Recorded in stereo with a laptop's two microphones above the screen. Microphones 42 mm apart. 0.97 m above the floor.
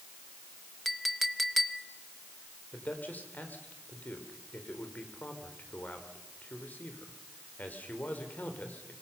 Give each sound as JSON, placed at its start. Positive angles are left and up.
{"t": 0.8, "sound": "a clink", "side_deg": 0, "distance_m": 0.8}
{"t": 2.7, "sound": "a man speaking", "side_deg": 40, "distance_m": 3.0}